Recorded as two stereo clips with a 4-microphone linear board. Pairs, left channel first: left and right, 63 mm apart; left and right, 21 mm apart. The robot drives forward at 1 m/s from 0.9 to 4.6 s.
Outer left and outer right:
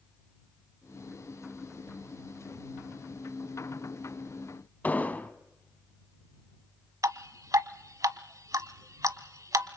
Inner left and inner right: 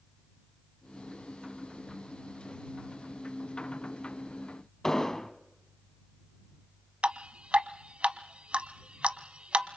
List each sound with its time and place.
4.8 s an explosion: 25° left (ahead or behind), 1.2 m
7.0 s dripping: 60° right (ahead or behind), 1.1 m